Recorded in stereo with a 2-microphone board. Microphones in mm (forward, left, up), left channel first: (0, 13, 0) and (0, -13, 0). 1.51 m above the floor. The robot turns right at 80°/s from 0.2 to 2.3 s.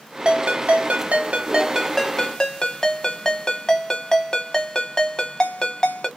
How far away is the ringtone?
About 1.0 m.